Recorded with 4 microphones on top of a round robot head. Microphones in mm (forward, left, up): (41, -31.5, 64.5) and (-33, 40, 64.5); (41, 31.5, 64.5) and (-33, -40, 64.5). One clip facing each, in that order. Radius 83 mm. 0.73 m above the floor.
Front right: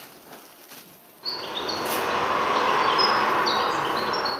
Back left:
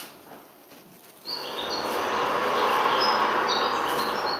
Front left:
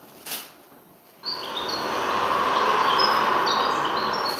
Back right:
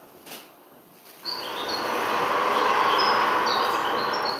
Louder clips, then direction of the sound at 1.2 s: Front right 1 dB, even; 35° right.